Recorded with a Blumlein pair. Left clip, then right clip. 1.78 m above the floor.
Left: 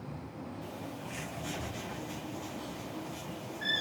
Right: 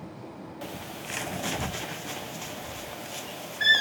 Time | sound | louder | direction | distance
0.6 | a bird | right 7 dB | 40° right | 0.9 m